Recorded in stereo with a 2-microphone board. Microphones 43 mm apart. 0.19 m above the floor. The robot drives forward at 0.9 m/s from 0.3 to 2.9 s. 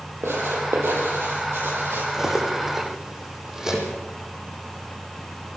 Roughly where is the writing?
Right.